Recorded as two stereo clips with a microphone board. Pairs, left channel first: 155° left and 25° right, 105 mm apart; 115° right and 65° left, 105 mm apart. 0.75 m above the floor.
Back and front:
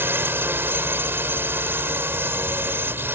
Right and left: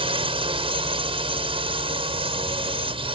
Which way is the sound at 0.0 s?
45° left.